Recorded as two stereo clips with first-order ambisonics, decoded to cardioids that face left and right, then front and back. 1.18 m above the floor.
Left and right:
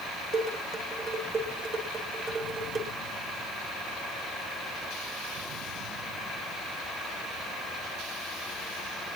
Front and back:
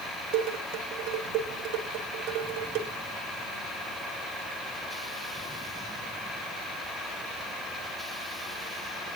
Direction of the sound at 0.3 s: 150° right.